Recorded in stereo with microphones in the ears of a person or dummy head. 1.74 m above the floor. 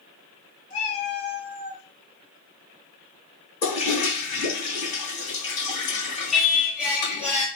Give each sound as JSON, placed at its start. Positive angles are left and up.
{"t": 0.7, "sound": "a cat meowing", "side_deg": 35, "distance_m": 1.9}
{"t": 3.6, "sound": "a toilet flushing", "side_deg": 55, "distance_m": 1.2}
{"t": 6.3, "sound": "singing", "side_deg": 0, "distance_m": 1.2}